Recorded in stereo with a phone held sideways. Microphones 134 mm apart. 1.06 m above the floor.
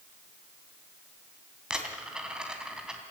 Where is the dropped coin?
5° right (ahead or behind), 3 m.